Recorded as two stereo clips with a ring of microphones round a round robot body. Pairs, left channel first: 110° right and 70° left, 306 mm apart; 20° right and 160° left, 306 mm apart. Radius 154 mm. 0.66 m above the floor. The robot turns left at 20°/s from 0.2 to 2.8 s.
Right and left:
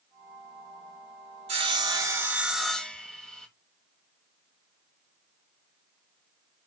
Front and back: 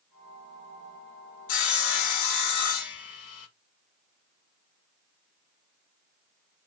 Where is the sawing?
Straight ahead, 0.6 m; by 3.5 s 25° right, 0.6 m.